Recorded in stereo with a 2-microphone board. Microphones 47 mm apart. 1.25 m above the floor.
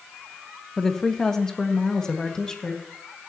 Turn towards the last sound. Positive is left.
turn(degrees=15)  # may be behind; listen again after turning